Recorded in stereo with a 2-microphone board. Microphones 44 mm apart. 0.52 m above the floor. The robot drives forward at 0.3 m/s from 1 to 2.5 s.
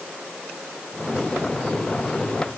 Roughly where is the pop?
I don't hear a pop.